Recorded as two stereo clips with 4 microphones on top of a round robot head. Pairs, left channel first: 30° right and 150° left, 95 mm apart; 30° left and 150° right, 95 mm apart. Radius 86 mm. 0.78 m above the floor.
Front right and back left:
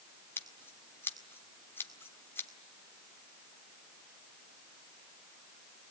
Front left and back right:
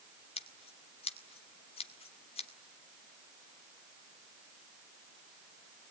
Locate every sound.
0.4 s scissors: 35° left, 2.0 m